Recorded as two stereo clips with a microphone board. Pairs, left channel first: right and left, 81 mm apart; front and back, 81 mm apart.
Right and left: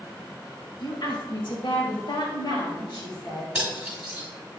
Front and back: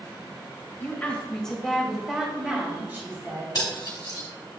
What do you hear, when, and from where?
0.8 s a woman speaking: 65° right, 1.5 m; by 3.5 s 120° right, 2 m
3.5 s cutlery clinking: 15° left, 1.6 m